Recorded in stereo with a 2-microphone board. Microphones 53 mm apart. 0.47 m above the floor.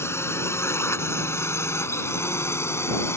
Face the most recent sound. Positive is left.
turn(degrees=55)  # may be behind; listen again after turning